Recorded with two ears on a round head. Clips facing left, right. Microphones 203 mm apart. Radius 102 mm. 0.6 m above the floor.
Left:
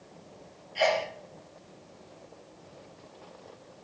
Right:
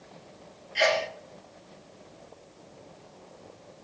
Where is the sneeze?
25° right (ahead or behind), 0.7 m.